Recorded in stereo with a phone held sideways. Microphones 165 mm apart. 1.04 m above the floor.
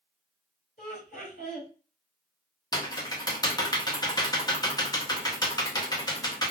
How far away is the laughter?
About 2 m.